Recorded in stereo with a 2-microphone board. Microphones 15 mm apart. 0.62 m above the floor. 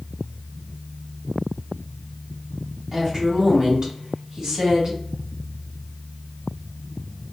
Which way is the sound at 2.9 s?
30° right (ahead or behind).